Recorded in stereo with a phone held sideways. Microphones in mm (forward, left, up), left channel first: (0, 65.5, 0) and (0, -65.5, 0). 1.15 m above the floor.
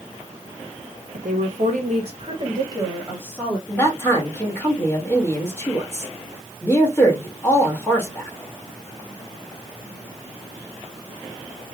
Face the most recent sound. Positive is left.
turn(degrees=15)  # may be behind; listen again after turning